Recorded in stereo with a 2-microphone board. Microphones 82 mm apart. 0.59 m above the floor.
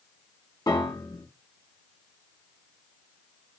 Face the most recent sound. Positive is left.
turn(degrees=55)  # may be behind; listen again after turning